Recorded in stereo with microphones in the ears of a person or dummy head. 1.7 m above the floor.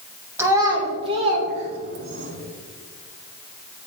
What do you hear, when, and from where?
0.4 s a child speaking: 15° right (ahead or behind), 1.2 m; by 2.3 s 55° right (ahead or behind), 1.5 m